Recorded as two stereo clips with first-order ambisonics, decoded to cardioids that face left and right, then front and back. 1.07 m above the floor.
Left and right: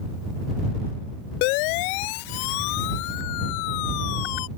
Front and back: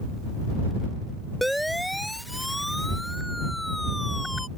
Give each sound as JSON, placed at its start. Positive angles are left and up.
{"t": 1.4, "sound": "a siren", "azimuth_deg": 90}